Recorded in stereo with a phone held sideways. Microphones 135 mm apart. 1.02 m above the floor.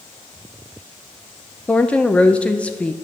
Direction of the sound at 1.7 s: 10° left (ahead or behind).